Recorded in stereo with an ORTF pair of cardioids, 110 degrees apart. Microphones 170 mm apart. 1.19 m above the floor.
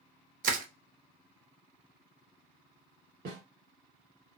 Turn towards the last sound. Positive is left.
turn(degrees=-70)